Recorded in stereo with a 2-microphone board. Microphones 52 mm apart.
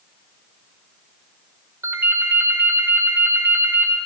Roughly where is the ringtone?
Right.